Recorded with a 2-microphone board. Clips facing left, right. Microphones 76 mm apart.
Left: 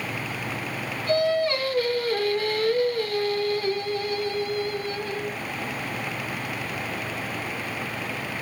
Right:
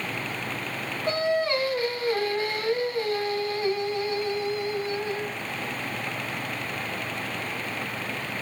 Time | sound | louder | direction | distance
1.1 | singing | left 3 dB | 25° right (ahead or behind) | 1.7 m